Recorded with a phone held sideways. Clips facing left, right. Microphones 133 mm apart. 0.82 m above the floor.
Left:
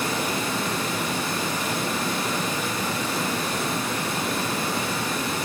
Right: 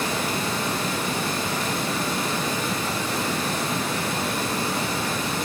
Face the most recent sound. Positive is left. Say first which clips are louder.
# even
turn(degrees=10)  # may be behind; listen again after turning